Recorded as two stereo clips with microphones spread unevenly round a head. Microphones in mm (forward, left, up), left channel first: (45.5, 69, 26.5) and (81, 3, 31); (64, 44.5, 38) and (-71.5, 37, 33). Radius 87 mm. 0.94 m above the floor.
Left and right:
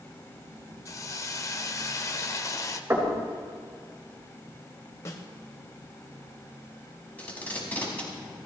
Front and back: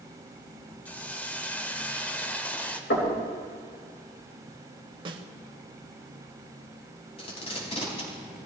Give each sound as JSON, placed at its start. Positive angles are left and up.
{"t": 0.8, "sound": "a hiss", "azimuth_deg": 80, "distance_m": 0.9}
{"t": 2.9, "sound": "knocking", "azimuth_deg": -5, "distance_m": 4.0}
{"t": 5.0, "sound": "a snare drum", "azimuth_deg": 155, "distance_m": 0.8}
{"t": 7.2, "sound": "tape being pulled", "azimuth_deg": 50, "distance_m": 5.0}